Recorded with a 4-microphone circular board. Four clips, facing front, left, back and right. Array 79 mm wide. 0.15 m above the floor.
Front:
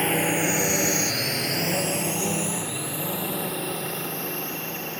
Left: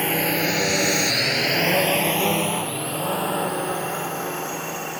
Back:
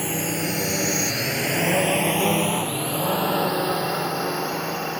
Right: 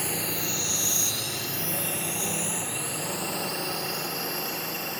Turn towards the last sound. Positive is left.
turn(degrees=155)